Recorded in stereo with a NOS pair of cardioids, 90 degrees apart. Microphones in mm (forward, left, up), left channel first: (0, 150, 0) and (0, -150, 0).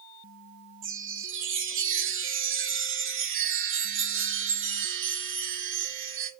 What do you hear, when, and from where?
0.8 s a chime: 45° right, 0.5 m